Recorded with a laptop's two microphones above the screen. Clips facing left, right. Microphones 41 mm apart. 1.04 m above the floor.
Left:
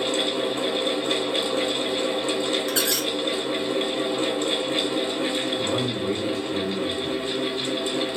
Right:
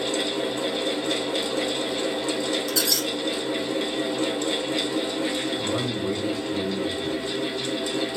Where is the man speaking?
55° left (ahead or behind), 1.3 m.